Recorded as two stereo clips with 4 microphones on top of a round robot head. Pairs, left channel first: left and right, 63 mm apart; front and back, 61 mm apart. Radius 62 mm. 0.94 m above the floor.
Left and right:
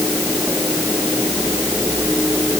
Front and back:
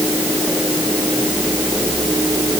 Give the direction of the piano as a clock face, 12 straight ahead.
No piano in this recording.